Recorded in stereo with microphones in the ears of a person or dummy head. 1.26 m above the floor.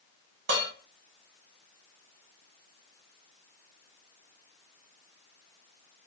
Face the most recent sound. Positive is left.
turn(degrees=-70)  # may be behind; listen again after turning